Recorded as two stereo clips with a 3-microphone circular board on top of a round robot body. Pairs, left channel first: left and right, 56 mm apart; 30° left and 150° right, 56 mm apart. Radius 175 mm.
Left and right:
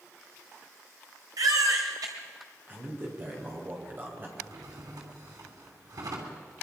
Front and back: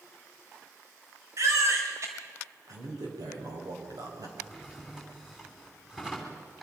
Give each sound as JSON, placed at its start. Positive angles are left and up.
{"t": 1.4, "sound": "a baby crying", "azimuth_deg": -110, "distance_m": 2.5}
{"t": 2.7, "sound": "a man speaking", "azimuth_deg": -145, "distance_m": 5.5}
{"t": 4.4, "sound": "a drawer", "azimuth_deg": -70, "distance_m": 3.0}